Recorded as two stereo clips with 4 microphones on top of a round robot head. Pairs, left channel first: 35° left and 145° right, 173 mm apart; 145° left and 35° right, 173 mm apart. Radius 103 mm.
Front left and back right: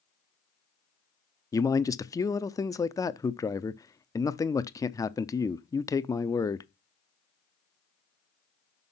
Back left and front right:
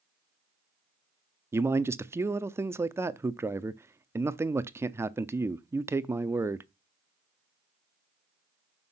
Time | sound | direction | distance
1.5 | a man speaking | 10° left | 0.7 m